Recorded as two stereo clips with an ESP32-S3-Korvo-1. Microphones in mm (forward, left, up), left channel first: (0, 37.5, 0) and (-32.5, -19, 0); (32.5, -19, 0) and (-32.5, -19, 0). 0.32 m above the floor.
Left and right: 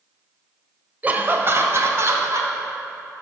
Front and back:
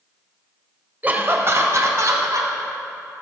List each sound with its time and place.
1.0 s laughter: 150° right, 1.1 m; by 2.5 s 155° right, 2.5 m